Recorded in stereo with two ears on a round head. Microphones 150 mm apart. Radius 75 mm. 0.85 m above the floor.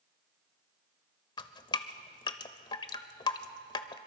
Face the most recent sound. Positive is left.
turn(degrees=25)  # may be behind; listen again after turning